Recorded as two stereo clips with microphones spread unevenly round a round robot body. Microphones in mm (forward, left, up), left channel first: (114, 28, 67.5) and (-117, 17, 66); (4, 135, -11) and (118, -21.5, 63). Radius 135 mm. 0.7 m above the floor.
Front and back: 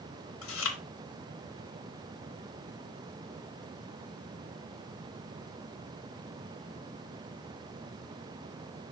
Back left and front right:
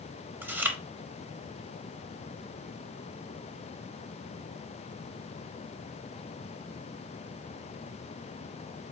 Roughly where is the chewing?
Ahead.